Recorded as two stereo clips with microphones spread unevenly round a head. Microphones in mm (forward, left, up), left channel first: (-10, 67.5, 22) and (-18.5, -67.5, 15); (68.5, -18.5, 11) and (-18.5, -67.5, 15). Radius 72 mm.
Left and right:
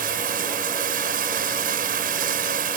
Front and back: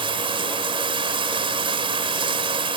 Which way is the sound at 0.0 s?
120° right.